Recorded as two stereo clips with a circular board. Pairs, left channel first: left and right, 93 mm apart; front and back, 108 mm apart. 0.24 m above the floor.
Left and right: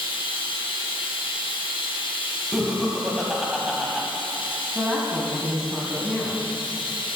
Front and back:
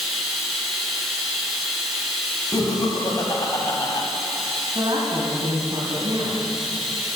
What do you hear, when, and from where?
0.0 s running water: 90° left, 1.8 m
2.5 s laughter: 10° right, 1.4 m
4.8 s a woman speaking: 175° right, 1.5 m